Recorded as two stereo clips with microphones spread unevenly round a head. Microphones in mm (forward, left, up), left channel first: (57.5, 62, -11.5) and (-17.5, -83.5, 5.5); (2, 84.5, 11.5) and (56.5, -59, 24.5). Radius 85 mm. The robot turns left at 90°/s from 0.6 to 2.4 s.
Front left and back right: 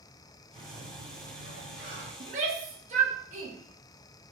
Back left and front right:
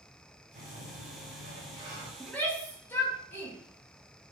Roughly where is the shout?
Behind right.